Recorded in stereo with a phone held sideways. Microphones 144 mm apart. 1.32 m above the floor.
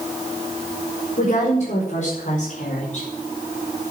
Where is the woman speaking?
75° left (ahead or behind), 4.5 m; by 3.0 s 65° left (ahead or behind), 5 m.